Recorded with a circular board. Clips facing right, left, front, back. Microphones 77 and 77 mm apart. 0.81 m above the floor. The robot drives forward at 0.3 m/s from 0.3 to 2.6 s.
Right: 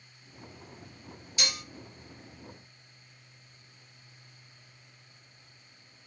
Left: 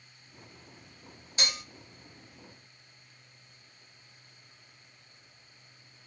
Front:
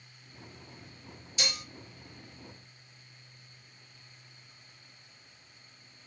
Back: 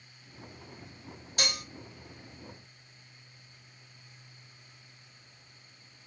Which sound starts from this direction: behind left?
Dishes clattering, at 1.4 s.